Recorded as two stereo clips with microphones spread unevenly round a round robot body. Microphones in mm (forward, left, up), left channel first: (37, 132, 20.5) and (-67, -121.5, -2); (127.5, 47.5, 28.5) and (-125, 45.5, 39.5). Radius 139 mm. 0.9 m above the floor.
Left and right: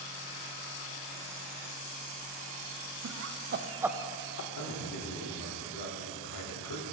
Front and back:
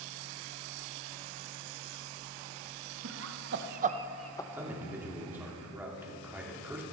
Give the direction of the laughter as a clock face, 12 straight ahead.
5 o'clock.